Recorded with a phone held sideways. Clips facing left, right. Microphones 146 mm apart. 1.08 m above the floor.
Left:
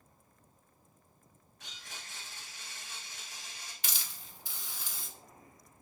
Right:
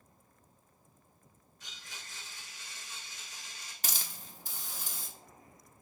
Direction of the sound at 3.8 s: 45° right (ahead or behind).